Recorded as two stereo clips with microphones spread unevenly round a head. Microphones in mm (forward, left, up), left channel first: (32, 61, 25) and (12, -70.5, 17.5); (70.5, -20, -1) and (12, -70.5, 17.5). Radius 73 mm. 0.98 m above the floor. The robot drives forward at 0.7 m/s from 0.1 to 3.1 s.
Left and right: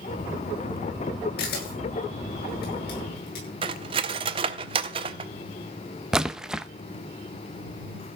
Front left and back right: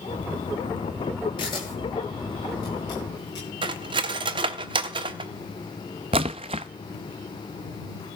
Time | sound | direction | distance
1.4 | a camera shutter | 100° left | 8.5 m
3.6 | cutlery clinking | 155° right | 0.9 m
6.1 | a splash | 175° left | 0.5 m